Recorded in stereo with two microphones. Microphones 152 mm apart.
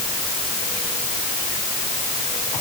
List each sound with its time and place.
Only background noise.